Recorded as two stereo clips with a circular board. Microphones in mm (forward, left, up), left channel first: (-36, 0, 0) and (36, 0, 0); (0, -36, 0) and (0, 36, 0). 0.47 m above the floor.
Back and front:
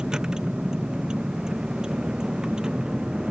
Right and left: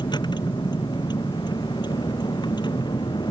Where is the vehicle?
80° right.